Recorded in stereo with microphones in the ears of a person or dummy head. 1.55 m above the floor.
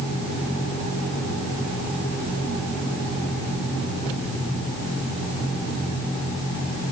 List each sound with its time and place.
Only background noise.